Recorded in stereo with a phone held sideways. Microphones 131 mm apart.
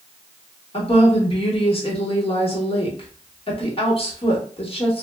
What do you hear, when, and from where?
0.7 s a woman speaking: 45° left (ahead or behind), 1.0 m